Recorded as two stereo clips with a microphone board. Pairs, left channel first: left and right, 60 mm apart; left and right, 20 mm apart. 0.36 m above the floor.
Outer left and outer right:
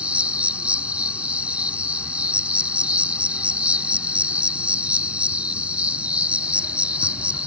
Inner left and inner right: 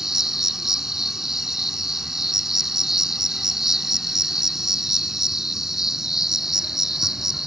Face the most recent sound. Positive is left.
turn(degrees=-20)  # may be behind; listen again after turning